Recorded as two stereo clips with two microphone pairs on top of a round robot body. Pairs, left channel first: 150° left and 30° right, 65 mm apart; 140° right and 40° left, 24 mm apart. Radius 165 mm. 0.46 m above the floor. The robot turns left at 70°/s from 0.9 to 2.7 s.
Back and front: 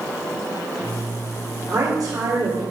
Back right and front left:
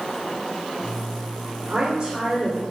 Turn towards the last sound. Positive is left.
turn(degrees=-65)